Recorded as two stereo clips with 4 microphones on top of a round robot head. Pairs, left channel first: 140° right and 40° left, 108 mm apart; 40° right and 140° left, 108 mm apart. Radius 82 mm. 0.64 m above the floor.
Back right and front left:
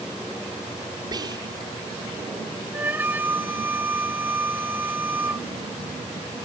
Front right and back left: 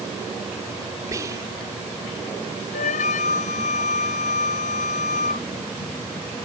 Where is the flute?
35° right.